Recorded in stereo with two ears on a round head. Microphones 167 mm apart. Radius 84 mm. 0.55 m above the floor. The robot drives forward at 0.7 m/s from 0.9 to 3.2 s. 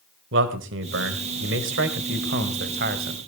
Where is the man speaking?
75° right (ahead or behind), 2 m; by 3.2 s 55° right (ahead or behind), 2.5 m.